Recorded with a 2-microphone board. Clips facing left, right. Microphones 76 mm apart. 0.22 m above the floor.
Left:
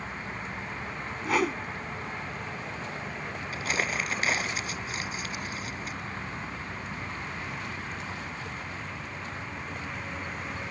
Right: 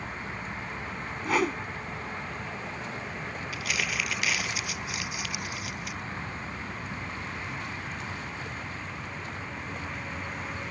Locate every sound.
1.2 s a whoosh: centre (ahead or behind)
3.5 s crumpling: 35° left (ahead or behind)